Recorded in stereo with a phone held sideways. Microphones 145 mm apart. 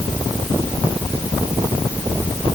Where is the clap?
No clap in this recording.